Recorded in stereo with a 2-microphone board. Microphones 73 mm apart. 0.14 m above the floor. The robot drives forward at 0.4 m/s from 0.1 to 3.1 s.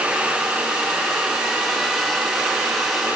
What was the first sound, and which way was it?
Only background noise.